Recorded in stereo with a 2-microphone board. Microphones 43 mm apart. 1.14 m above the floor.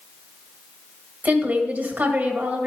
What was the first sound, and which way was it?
A woman speaking, 45° right (ahead or behind).